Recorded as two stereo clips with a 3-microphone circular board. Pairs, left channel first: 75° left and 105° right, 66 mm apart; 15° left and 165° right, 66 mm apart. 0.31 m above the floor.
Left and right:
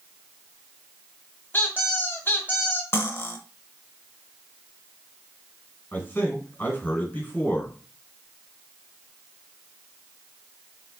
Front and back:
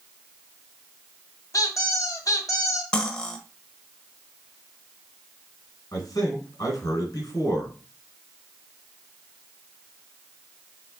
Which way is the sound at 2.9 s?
80° left.